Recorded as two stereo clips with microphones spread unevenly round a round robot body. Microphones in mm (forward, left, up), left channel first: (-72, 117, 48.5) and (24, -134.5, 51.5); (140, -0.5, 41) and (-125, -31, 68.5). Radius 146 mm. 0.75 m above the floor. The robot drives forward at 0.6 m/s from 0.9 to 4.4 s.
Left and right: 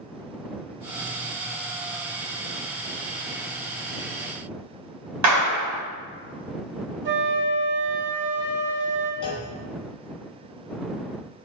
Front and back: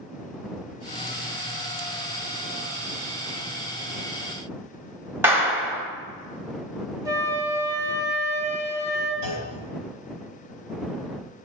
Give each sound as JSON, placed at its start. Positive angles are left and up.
{"t": 5.2, "sound": "a clap", "azimuth_deg": -90, "distance_m": 1.3}
{"t": 7.0, "sound": "a flute", "azimuth_deg": -95, "distance_m": 1.3}
{"t": 9.2, "sound": "a clunk", "azimuth_deg": 180, "distance_m": 3.0}